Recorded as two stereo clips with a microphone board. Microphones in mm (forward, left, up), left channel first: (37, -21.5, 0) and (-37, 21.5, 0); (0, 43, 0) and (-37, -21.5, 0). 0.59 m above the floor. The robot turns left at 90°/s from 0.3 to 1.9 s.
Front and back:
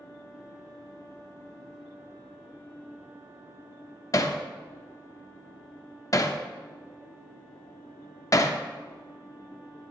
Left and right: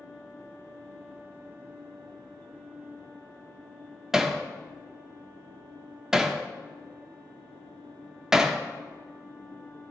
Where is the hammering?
40° right, 0.8 m.